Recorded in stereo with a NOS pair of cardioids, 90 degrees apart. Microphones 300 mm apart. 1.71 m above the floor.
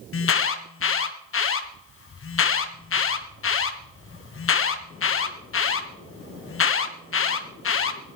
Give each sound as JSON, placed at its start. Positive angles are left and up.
{"t": 0.1, "sound": "an alarm", "azimuth_deg": 45, "distance_m": 1.7}